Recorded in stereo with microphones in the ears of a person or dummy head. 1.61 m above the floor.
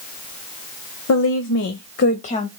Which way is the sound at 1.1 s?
85° left.